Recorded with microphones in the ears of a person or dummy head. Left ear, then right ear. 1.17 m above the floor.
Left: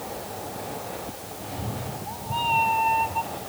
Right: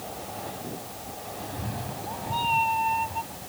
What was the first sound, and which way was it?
A cat meowing, 30° right (ahead or behind).